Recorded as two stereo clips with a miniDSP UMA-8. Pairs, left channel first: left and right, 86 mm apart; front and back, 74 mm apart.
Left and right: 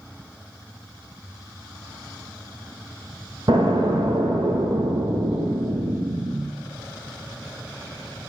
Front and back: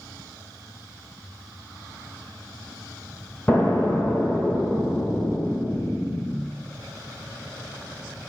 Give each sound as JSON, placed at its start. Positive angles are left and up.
{"t": 3.5, "sound": "an explosion", "azimuth_deg": -70, "distance_m": 1.3}